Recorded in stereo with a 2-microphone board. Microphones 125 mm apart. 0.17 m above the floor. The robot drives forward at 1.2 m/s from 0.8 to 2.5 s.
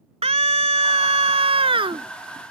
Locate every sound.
0.2 s a scream: 55° right (ahead or behind); by 2.1 s 40° right (ahead or behind)